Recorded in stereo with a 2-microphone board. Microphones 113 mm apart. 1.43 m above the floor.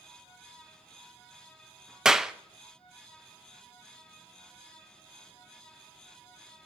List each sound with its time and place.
2.0 s a clap: 5° right (ahead or behind), 0.7 m